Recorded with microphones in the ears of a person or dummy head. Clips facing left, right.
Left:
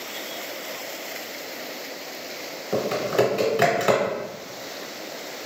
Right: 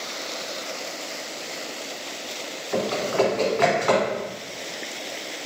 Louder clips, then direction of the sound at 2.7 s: Left 1 dB; 50° left (ahead or behind).